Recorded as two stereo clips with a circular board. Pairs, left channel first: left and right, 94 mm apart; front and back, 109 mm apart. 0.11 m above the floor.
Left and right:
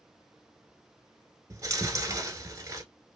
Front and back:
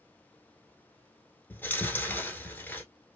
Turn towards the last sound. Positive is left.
turn(degrees=-60)